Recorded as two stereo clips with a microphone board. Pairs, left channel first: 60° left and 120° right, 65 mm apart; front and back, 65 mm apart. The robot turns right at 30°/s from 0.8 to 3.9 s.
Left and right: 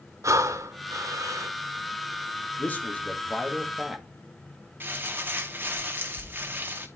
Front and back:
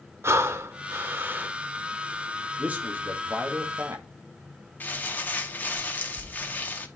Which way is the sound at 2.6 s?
115° left.